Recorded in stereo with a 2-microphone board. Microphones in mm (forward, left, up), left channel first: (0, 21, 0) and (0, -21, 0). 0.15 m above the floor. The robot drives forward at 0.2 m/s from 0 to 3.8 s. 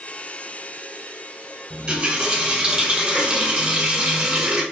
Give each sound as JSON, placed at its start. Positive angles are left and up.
{"t": 1.7, "sound": "a running tap", "side_deg": -25, "distance_m": 1.5}